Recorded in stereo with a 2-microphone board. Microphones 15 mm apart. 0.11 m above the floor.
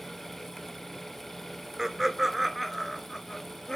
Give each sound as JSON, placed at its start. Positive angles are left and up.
{"t": 1.8, "sound": "laughter", "side_deg": -20, "distance_m": 1.1}